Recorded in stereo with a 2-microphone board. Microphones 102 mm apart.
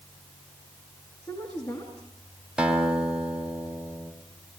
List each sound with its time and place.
1.2 s a woman speaking: 35° left (ahead or behind), 5 m
2.6 s a guitar: 5° right (ahead or behind), 2.5 m